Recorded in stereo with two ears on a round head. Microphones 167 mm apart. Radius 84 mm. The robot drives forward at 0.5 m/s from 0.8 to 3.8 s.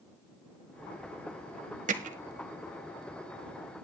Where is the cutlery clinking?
No cutlery clinking in this recording.